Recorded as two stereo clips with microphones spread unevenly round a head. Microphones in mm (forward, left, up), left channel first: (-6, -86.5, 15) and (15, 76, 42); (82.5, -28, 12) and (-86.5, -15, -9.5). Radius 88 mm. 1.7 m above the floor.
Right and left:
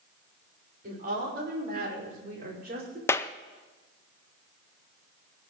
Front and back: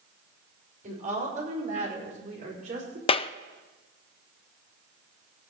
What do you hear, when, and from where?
0.8 s a woman speaking: 125° left, 6 m
3.1 s a clap: 15° right, 0.6 m